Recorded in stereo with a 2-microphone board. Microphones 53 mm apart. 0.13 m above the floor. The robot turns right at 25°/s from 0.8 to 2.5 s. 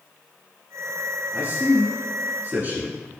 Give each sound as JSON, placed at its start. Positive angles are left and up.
{"t": 1.3, "sound": "a man speaking", "side_deg": -30, "distance_m": 1.9}